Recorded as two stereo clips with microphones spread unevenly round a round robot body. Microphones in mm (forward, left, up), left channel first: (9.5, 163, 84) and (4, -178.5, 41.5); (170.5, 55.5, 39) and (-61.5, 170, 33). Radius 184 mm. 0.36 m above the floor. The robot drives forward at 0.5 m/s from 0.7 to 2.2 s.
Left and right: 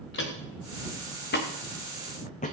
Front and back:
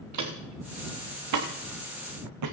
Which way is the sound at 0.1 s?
145° left.